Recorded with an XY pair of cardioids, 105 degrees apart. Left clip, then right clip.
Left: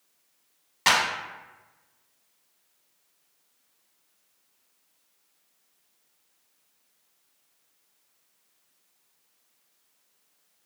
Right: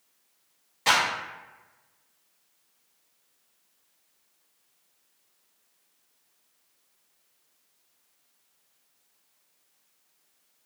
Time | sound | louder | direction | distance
0.9 | a clap | left 1 dB | 65° left | 0.9 m